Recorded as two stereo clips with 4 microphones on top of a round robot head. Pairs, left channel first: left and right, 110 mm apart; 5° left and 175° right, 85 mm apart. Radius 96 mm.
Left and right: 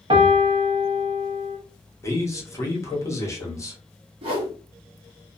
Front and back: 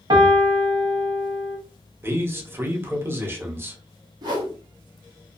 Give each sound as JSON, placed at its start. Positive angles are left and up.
{"t": 0.1, "sound": "a piano", "azimuth_deg": -135, "distance_m": 0.6}
{"t": 2.0, "sound": "a man speaking", "azimuth_deg": 140, "distance_m": 1.0}
{"t": 4.2, "sound": "a whoosh", "azimuth_deg": -130, "distance_m": 0.7}